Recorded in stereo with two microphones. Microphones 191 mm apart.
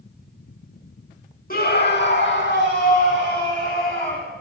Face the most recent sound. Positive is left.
turn(degrees=55)  # may be behind; listen again after turning